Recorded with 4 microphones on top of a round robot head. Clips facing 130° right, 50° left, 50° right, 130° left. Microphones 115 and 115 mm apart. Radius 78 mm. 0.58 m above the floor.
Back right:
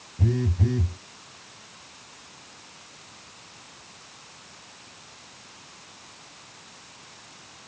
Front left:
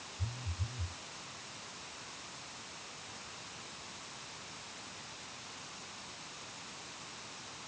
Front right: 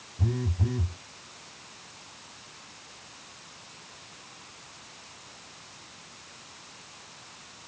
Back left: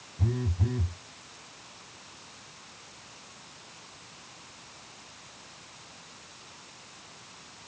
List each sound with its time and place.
0.2 s a phone buzzing: 140° right